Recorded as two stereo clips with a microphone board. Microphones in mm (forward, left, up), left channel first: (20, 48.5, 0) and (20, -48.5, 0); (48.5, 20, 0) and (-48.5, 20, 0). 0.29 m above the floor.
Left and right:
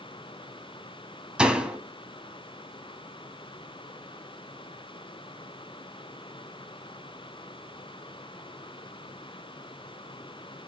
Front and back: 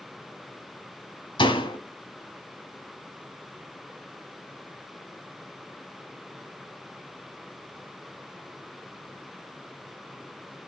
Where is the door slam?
10° right, 1.4 m.